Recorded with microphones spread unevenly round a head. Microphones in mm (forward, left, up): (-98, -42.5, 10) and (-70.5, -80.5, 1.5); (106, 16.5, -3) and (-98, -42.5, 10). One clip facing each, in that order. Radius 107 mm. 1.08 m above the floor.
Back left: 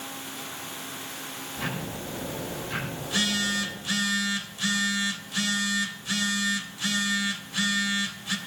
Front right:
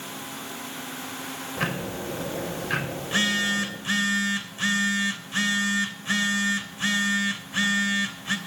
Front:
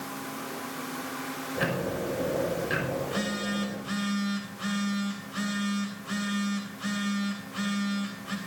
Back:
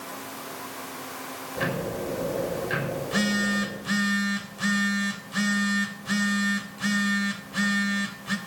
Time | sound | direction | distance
1.6 | ticking | 70° right | 5.5 m
3.0 | a phone buzzing | 105° right | 3 m